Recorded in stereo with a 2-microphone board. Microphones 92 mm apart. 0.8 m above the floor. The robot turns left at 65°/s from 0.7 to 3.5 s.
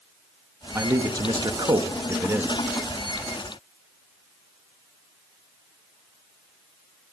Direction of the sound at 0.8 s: 40° right.